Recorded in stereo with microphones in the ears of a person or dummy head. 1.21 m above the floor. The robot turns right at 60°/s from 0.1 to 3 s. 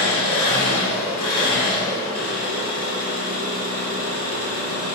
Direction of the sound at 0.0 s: 45° left.